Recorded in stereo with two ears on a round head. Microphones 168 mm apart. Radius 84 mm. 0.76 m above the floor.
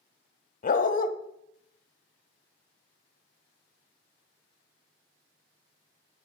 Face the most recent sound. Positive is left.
turn(degrees=45)  # may be behind; listen again after turning